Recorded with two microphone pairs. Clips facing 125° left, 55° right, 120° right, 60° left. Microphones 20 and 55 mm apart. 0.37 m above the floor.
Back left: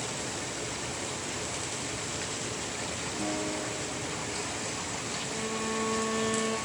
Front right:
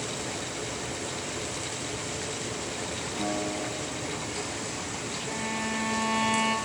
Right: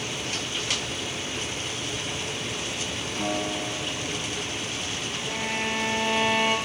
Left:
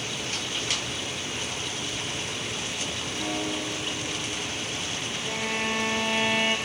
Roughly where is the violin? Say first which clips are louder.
Front right 3 dB, even; ahead right.